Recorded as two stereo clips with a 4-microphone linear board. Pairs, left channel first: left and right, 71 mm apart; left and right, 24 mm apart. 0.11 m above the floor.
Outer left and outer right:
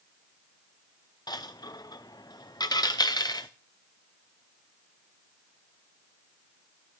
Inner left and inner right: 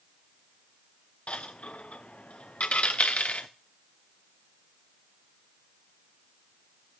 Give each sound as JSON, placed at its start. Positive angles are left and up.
{"t": 1.3, "sound": "a dropped coin", "side_deg": 65, "distance_m": 0.8}